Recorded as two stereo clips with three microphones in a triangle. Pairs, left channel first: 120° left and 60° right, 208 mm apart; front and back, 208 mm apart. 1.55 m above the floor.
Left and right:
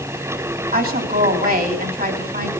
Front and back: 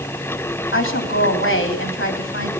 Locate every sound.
0.7 s a woman speaking: 15° right, 3 m